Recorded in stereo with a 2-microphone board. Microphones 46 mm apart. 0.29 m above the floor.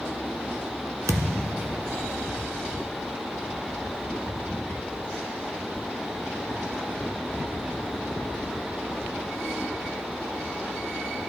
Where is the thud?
75° right (ahead or behind), 0.8 m.